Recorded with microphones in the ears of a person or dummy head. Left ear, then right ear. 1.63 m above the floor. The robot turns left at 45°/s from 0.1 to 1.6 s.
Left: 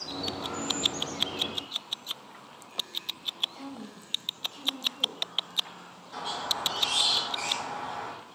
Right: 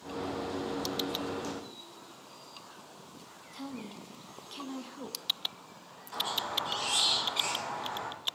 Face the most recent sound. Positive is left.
turn(degrees=-45)  # may be behind; listen again after turning